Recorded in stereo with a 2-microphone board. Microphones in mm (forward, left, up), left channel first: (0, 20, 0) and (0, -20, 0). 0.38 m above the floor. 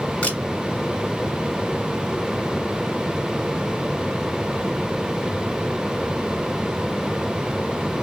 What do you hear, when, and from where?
0.2 s a camera shutter: 25° left (ahead or behind), 1.9 m